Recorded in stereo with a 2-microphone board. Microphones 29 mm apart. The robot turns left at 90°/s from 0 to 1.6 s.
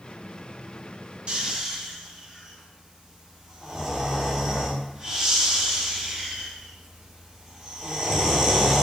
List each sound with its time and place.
1.3 s snoring: 40° right (ahead or behind), 0.6 m; by 8.8 s 20° right (ahead or behind), 0.6 m